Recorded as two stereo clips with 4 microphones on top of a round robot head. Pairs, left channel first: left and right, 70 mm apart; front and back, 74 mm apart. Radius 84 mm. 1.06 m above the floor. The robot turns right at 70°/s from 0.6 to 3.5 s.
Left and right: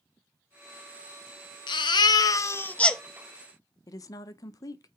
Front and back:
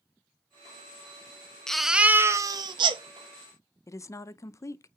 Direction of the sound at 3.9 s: 50° left.